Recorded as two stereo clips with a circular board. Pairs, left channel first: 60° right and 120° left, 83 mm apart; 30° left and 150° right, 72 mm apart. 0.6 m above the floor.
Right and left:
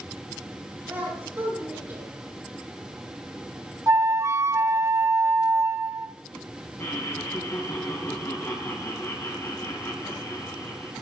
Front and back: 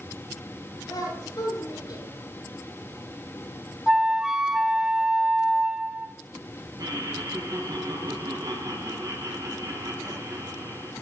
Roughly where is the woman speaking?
Ahead left.